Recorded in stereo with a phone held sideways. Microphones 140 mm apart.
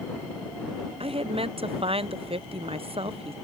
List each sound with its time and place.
1.0 s a woman speaking: 45° right (ahead or behind)